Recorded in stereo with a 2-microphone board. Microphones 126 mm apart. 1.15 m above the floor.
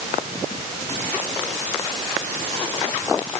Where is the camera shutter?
No camera shutter in this recording.